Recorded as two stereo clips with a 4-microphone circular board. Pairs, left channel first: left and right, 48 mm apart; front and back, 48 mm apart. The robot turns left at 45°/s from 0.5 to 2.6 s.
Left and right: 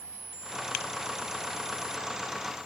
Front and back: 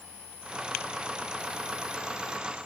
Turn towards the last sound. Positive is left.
No sound to turn to.